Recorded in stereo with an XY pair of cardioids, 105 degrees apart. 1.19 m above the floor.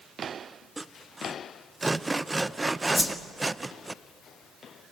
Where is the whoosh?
5° right, 1.8 m.